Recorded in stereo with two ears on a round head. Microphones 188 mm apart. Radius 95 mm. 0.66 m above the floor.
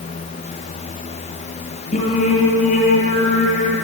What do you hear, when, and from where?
1.9 s singing: 35° left (ahead or behind), 7 m